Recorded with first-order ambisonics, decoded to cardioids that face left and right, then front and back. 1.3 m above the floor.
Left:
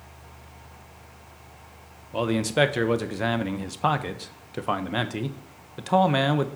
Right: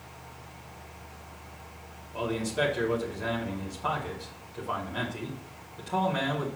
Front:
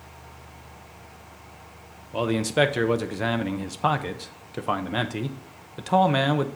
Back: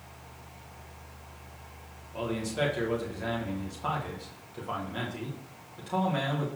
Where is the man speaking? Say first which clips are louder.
Left 6 dB, front 9 dB; 45° left, 0.8 m.